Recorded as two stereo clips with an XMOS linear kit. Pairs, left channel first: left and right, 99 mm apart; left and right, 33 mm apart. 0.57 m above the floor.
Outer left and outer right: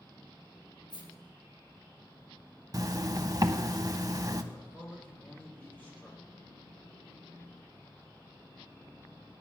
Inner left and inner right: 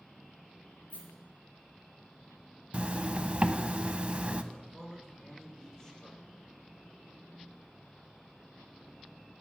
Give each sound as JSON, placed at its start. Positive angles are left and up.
{"t": 0.9, "sound": "a rattle", "side_deg": 45, "distance_m": 4.0}
{"t": 2.7, "sound": "a zipper", "side_deg": -40, "distance_m": 0.6}
{"t": 4.5, "sound": "a man speaking", "side_deg": 15, "distance_m": 3.0}